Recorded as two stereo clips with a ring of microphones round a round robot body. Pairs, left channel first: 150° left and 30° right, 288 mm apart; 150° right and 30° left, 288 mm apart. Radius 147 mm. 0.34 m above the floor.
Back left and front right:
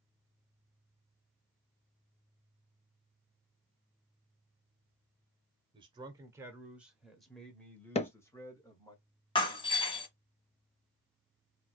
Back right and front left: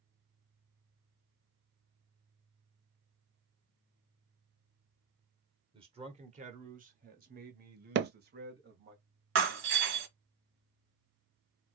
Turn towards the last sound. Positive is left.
turn(degrees=75)